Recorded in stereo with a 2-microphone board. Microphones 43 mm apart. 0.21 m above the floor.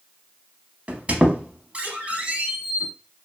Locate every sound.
0.9 s a squeak: 35° right (ahead or behind), 0.6 m